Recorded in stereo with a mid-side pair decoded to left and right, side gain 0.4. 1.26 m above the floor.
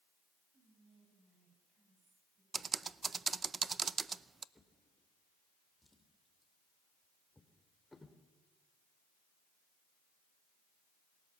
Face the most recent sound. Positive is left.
turn(degrees=15)